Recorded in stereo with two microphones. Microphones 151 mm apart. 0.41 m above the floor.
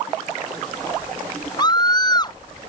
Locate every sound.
1.6 s a scream: 30° left (ahead or behind)